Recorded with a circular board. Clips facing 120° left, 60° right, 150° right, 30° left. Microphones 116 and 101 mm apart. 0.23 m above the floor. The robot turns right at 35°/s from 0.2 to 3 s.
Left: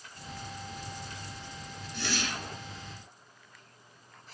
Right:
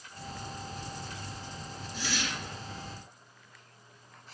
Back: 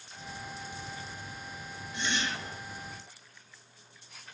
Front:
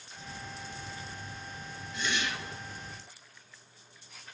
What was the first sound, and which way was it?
A whoosh, 150° left.